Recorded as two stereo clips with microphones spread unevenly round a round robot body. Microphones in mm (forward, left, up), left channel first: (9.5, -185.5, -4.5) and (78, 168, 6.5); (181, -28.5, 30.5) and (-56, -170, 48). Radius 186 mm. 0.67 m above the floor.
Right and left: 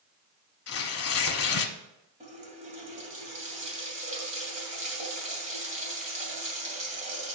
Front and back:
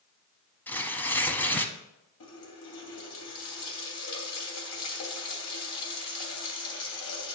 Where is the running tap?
10° left, 2.5 m.